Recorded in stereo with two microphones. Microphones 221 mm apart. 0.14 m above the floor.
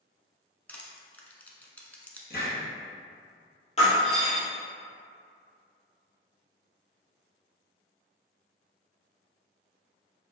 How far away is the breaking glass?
About 1.7 m.